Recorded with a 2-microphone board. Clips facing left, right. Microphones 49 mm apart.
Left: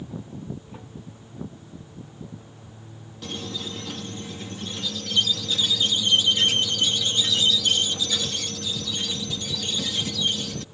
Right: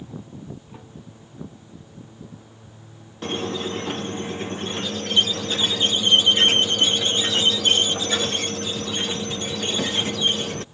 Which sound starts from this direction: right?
A squeak, at 3.2 s.